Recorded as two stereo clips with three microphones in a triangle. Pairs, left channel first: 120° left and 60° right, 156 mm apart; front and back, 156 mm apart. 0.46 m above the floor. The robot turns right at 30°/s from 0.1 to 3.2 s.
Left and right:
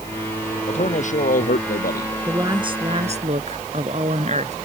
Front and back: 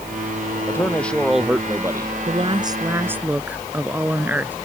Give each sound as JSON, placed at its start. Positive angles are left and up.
{"t": 0.7, "sound": "a man speaking", "azimuth_deg": 70}
{"t": 2.3, "sound": "a woman speaking", "azimuth_deg": -130}